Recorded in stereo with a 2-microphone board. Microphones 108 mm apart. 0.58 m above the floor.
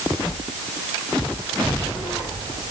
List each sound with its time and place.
Only background noise.